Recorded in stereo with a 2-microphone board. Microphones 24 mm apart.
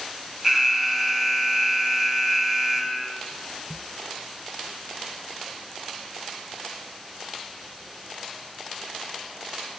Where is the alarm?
15° right (ahead or behind), 2 m.